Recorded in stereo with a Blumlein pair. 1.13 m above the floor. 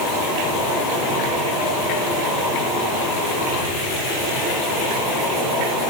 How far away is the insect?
About 4 m.